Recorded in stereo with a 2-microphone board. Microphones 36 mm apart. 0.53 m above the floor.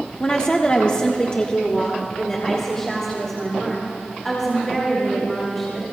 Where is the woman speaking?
20° left (ahead or behind), 1.1 m; by 5.8 s 5° left (ahead or behind), 5.5 m.